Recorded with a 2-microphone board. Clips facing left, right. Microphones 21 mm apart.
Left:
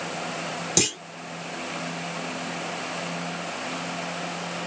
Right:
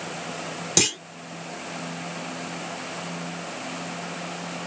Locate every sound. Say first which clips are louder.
0.8 s a clunk: right 2 dB; 10° right (ahead or behind)